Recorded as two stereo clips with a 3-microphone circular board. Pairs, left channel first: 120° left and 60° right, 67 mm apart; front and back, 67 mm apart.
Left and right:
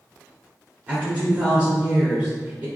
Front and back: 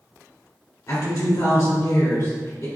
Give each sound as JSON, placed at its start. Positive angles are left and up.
{"t": 0.9, "sound": "a woman speaking", "azimuth_deg": 5, "distance_m": 2.0}